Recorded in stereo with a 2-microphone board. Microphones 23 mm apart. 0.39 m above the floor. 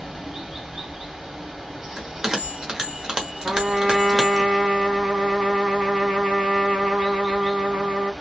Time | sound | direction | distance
0.0 | running water | 25° right (ahead or behind) | 2 m
2.0 | a bell | 30° right (ahead or behind) | 1.3 m
3.4 | a trumpet | 65° right (ahead or behind) | 2 m